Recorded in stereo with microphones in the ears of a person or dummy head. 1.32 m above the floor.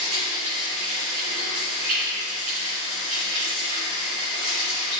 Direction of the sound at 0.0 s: 45° right (ahead or behind).